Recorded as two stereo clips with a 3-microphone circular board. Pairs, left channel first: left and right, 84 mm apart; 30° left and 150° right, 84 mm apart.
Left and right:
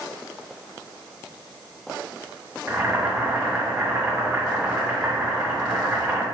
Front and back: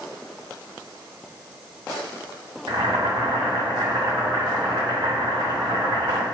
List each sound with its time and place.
2.7 s boiling: 165° right, 1.2 m